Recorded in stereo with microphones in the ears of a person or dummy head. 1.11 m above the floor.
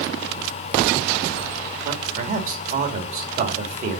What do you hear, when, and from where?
1.8 s a man speaking: 45° right (ahead or behind), 2.5 m